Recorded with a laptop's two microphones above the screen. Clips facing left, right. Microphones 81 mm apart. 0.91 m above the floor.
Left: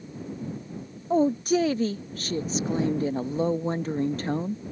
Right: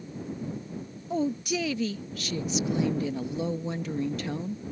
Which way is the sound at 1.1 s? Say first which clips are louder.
Left 7 dB; 40° left (ahead or behind).